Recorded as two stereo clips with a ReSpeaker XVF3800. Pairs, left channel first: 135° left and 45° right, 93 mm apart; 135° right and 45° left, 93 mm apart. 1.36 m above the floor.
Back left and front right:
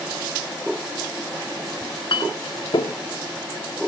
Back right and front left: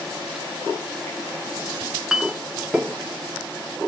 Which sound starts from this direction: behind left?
A clink, at 1.8 s.